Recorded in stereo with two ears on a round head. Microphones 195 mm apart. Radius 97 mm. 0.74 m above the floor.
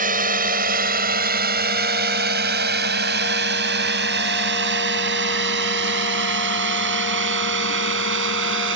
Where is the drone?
40° right (ahead or behind); by 8.8 s 60° right (ahead or behind).